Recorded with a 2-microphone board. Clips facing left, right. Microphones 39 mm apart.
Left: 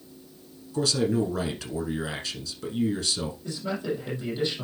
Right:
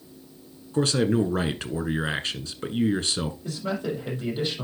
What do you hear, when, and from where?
0.7 s a man speaking: 40° right (ahead or behind), 1.4 m
3.4 s a man speaking: 25° right (ahead or behind), 5.5 m